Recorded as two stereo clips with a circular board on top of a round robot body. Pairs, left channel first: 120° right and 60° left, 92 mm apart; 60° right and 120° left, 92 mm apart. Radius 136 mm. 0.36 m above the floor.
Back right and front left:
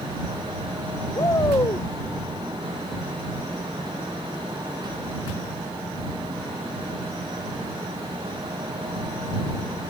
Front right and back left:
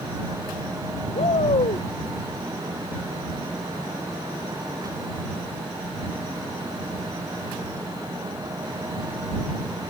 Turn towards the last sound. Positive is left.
turn(degrees=-65)